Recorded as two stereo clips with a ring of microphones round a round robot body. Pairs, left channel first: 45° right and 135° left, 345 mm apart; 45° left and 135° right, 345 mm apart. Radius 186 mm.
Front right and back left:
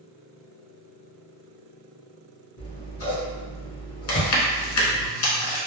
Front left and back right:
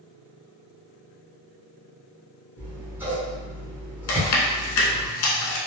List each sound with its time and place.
2.6 s scissors: 55° right, 1.2 m
4.1 s chewing: straight ahead, 0.8 m